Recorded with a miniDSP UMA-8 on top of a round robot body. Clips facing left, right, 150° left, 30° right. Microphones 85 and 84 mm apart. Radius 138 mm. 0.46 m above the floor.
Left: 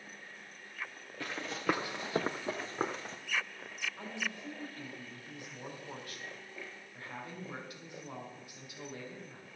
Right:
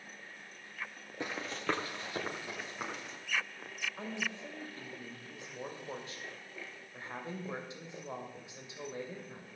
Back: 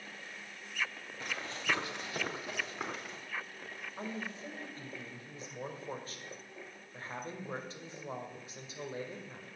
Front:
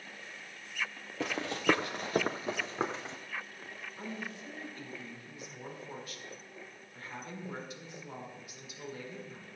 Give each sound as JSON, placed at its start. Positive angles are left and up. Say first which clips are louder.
{"t": 1.2, "sound": "running footsteps", "louder": "left 2 dB, front 8 dB", "azimuth_deg": -20, "distance_m": 0.6}
{"t": 4.0, "sound": "a woman speaking", "louder": "right 3 dB, back 1 dB", "azimuth_deg": -155, "distance_m": 2.5}